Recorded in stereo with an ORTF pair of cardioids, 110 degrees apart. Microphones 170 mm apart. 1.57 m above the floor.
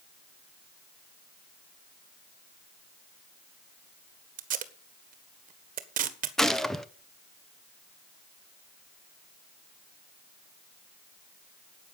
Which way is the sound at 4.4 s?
55° right.